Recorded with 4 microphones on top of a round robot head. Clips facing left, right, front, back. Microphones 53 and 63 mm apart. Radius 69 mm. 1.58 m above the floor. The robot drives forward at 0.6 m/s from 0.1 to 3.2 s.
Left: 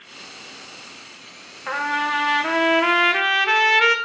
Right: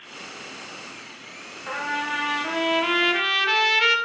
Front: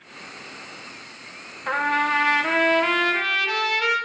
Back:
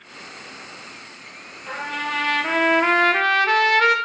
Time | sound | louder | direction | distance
1.7 | a trumpet | left 5 dB, front 6 dB | 25° left | 0.8 m